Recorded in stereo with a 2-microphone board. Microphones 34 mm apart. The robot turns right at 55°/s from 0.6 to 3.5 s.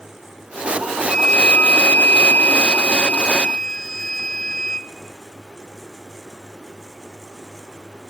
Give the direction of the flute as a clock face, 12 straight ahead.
11 o'clock.